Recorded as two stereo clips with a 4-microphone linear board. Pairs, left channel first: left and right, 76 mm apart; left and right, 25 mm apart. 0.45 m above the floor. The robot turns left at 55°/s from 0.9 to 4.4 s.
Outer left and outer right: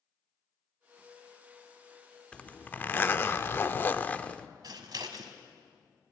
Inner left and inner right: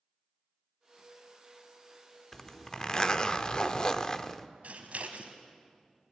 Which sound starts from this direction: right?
Scissors, at 4.6 s.